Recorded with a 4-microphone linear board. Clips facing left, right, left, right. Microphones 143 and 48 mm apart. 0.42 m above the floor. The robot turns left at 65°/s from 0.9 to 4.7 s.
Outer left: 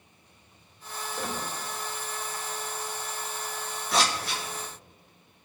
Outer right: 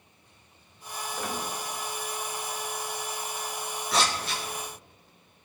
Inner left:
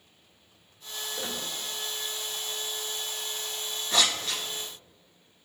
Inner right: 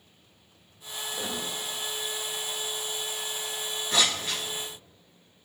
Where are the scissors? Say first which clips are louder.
Outer left 1 dB, even; centre (ahead or behind), 2.0 m; by 4.4 s 30° right (ahead or behind), 2.0 m.